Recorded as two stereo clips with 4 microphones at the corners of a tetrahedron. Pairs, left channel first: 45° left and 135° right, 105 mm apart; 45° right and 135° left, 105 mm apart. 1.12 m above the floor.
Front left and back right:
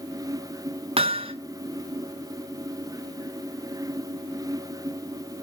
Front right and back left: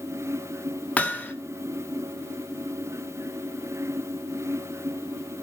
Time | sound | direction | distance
1.0 | hammering | 120° right | 1.4 m